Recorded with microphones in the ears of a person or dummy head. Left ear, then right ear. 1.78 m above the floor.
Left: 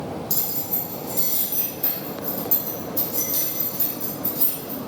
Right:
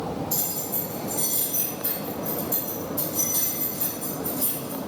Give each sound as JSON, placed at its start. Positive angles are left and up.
{"t": 0.3, "sound": "keys jangling", "side_deg": 60, "distance_m": 1.8}